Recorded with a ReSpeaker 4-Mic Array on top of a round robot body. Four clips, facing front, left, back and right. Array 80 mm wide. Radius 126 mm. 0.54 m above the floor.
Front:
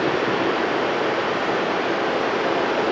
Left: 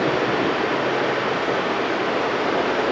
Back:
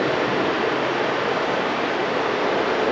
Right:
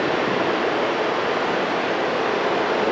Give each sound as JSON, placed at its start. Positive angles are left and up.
{"t": 0.0, "sound": "running water", "azimuth_deg": 170, "distance_m": 1.3}